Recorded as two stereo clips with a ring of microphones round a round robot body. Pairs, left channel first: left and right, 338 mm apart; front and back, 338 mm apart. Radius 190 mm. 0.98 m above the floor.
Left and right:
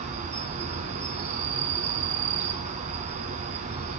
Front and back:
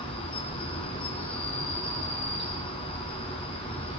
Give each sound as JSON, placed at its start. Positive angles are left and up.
{"t": 0.0, "sound": "an insect", "azimuth_deg": -55, "distance_m": 0.9}